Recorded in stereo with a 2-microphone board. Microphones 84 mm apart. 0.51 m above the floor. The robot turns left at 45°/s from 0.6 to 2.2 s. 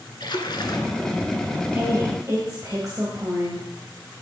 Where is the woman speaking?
25° right (ahead or behind), 2.5 m; by 3.7 s 45° right (ahead or behind), 2.5 m.